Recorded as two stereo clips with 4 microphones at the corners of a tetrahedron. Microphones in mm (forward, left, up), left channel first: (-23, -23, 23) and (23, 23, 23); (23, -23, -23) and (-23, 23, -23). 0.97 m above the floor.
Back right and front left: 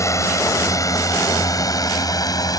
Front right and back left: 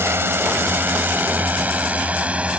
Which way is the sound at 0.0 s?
175° right.